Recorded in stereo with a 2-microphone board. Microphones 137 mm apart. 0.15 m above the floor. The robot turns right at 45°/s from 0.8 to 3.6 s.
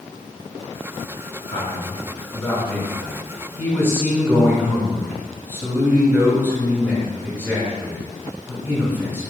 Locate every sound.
1.5 s a man speaking: 115° left, 1.9 m; by 9.3 s 150° right, 1.9 m